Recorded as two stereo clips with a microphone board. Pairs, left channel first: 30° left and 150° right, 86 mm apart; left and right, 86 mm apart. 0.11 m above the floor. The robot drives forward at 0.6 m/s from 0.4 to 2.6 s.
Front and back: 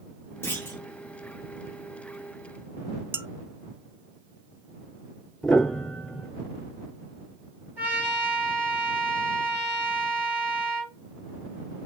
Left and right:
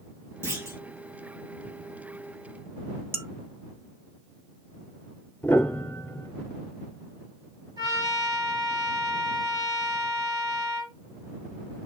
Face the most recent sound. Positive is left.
turn(degrees=-85)